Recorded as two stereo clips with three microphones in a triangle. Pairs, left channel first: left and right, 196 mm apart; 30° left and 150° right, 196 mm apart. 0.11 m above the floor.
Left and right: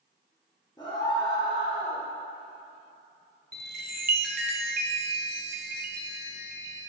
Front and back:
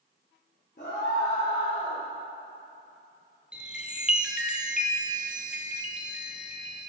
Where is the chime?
65° right, 0.6 m.